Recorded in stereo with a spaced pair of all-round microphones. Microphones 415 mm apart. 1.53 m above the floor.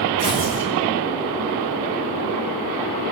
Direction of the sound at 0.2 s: 65° right (ahead or behind).